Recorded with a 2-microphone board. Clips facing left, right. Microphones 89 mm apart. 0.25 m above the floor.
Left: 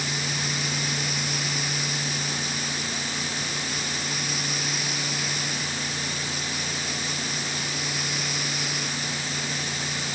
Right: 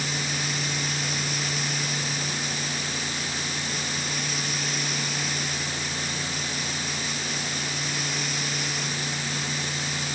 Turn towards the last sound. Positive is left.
No sound to turn to.